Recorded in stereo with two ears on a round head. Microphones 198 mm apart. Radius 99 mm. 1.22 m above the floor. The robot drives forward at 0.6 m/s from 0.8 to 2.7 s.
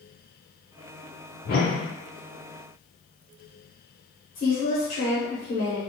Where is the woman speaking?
40° left (ahead or behind), 0.9 m.